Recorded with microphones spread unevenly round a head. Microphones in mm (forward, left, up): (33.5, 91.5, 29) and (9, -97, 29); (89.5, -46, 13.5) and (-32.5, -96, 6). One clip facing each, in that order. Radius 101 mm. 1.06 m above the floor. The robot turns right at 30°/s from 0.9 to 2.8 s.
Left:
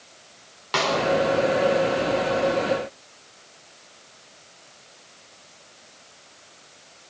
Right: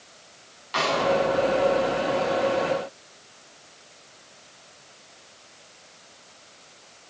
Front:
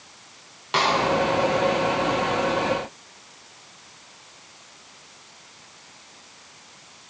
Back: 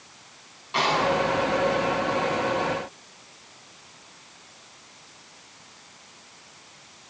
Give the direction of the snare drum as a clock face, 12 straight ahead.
10 o'clock.